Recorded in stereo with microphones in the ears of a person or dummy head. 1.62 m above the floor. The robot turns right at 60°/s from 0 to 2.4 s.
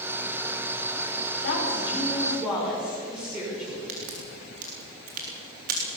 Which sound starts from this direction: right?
A crack, at 3.9 s.